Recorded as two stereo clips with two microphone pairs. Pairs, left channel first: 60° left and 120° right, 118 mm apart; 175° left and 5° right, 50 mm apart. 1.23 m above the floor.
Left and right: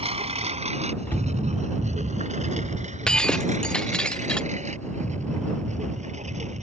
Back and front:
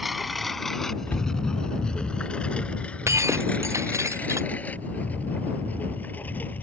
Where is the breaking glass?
25° right.